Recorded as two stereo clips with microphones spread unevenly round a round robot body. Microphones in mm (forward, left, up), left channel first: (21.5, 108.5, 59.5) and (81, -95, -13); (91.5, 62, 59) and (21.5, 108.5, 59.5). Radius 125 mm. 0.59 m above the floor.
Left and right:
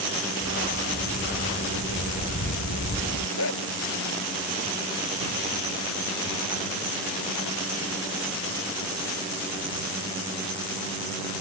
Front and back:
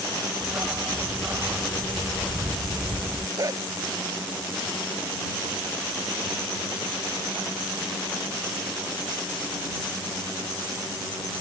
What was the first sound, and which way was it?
A dog barking, 75° left.